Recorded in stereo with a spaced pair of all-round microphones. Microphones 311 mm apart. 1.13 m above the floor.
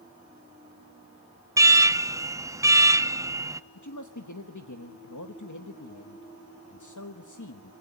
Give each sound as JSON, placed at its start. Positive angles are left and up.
{"t": 1.6, "sound": "an alarm", "side_deg": -10, "distance_m": 0.6}
{"t": 3.8, "sound": "a man speaking", "side_deg": 90, "distance_m": 1.1}